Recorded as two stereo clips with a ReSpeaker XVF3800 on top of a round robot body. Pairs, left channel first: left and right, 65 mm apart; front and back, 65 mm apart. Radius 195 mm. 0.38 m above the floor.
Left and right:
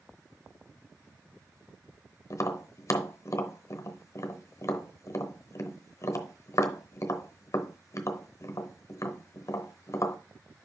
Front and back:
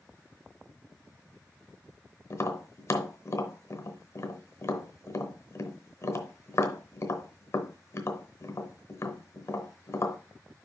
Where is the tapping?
45° left, 0.9 m.